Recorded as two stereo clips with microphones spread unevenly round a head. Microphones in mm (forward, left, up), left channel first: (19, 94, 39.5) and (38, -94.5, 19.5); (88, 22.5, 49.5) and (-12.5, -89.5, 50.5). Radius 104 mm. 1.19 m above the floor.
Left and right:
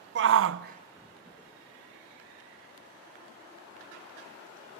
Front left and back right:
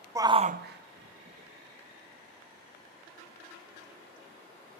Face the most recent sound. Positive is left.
turn(degrees=160)